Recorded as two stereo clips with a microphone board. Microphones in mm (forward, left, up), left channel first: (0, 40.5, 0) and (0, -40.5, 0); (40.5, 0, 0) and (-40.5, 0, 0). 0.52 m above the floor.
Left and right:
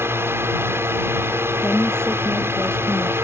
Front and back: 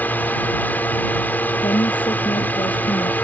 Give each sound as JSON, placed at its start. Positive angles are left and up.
{"t": 0.0, "sound": "a drone", "azimuth_deg": -55}
{"t": 1.6, "sound": "a woman speaking", "azimuth_deg": 10}